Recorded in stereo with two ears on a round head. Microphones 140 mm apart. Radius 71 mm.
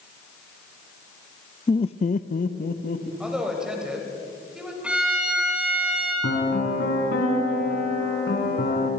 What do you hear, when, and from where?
1.7 s laughter: 20° left (ahead or behind), 0.5 m; by 3.1 s 55° left (ahead or behind), 1.8 m
3.2 s a woman speaking: 5° right (ahead or behind), 5 m
4.8 s a violin: 5° right (ahead or behind), 7 m
6.2 s a piano: 75° left (ahead or behind), 4.5 m